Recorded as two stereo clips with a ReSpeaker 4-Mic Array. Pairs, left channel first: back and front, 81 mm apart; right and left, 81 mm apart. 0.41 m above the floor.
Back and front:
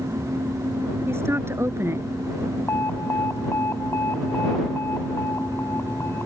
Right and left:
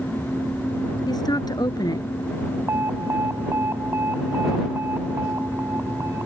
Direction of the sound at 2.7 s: 135° left.